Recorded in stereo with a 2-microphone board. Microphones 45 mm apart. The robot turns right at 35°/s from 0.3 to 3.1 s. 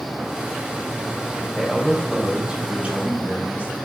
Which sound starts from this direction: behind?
A man speaking, at 1.6 s.